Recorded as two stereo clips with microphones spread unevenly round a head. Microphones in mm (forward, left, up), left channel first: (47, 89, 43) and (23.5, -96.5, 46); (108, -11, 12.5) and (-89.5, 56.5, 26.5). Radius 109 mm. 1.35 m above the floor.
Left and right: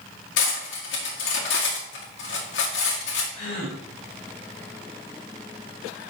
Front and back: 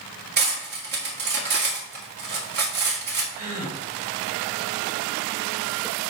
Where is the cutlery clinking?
120° left, 1.8 m.